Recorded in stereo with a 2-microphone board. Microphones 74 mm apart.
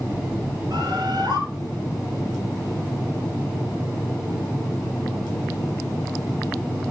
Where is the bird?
65° right (ahead or behind), 3.5 m.